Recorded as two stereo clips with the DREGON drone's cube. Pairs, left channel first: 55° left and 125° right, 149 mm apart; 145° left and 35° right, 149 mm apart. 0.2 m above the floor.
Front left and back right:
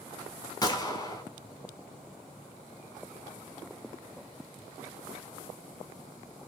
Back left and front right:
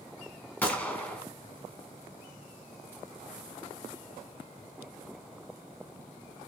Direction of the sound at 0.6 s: 80° left.